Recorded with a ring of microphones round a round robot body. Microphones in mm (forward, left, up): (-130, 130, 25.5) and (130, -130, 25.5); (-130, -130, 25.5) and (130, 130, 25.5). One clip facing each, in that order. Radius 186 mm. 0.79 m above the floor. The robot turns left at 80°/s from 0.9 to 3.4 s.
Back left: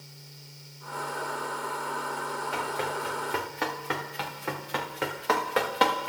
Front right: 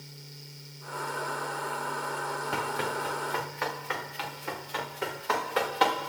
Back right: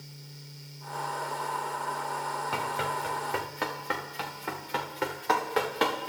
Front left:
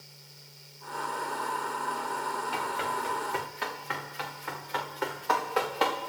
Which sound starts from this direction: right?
Running footsteps, at 2.5 s.